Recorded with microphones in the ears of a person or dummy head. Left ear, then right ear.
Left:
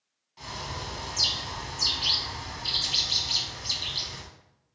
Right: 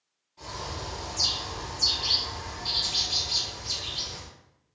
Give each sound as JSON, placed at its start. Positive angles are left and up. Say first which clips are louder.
{"t": 0.4, "sound": "a bird", "louder": "even", "side_deg": 45, "distance_m": 0.8}